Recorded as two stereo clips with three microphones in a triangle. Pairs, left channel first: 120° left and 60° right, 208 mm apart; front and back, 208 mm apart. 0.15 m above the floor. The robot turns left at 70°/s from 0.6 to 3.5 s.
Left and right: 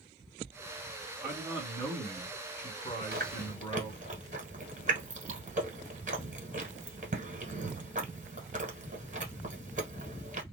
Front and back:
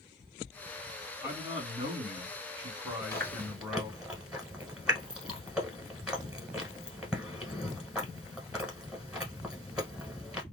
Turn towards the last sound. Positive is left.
turn(degrees=-95)